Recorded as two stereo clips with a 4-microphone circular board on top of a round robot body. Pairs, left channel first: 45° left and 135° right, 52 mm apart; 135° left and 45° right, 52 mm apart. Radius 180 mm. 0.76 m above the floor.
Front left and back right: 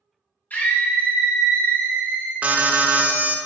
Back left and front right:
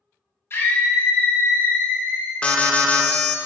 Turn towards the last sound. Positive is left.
turn(degrees=-170)